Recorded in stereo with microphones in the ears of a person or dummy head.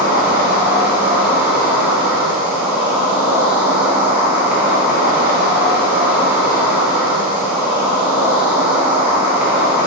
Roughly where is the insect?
Centre.